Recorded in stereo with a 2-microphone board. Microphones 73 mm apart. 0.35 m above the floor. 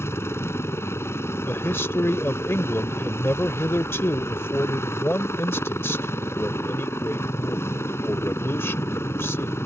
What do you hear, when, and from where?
0.0 s a helicopter: 35° left (ahead or behind)
1.4 s a man speaking: 35° left (ahead or behind)